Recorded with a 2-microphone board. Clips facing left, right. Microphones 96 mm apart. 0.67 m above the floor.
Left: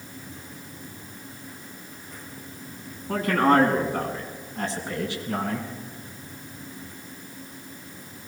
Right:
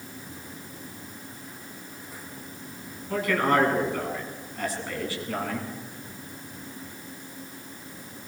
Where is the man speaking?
40° left (ahead or behind), 7 m; by 5.7 s 15° left (ahead or behind), 7.5 m.